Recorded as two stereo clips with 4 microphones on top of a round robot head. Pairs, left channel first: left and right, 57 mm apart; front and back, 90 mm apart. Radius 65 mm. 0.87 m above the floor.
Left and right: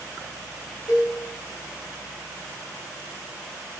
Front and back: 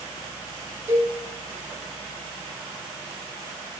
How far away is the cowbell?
About 2.5 m.